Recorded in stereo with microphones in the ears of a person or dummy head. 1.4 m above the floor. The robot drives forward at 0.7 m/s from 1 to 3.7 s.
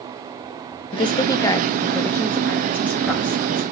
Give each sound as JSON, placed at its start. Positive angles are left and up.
{"t": 0.9, "sound": "a woman speaking", "side_deg": 25, "distance_m": 0.9}